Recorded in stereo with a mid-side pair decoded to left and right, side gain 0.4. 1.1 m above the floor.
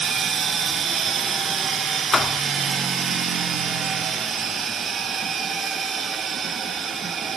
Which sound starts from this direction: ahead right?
A machine running, at 0.0 s.